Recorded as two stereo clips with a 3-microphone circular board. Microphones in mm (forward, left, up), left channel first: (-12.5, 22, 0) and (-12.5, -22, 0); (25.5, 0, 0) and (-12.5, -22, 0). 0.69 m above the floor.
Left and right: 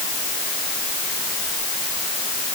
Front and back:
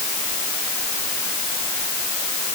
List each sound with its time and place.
Only background noise.